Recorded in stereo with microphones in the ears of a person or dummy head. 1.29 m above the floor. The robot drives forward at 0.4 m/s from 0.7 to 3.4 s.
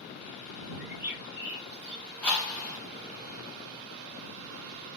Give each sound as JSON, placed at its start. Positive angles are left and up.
{"t": 0.8, "sound": "a bird", "side_deg": -10, "distance_m": 2.5}
{"t": 2.2, "sound": "a whoosh", "side_deg": 5, "distance_m": 2.5}